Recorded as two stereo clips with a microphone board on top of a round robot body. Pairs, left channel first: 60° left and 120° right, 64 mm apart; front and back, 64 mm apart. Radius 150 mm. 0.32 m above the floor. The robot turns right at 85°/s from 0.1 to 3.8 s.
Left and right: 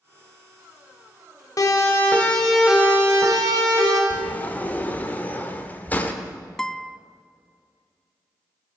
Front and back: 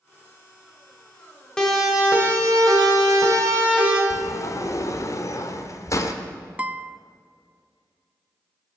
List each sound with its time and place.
1.6 s a siren: 80° left, 2.5 m; by 4.0 s 105° right, 3.5 m
4.1 s a sliding door: straight ahead, 1.3 m
6.6 s a guitar: 135° left, 0.6 m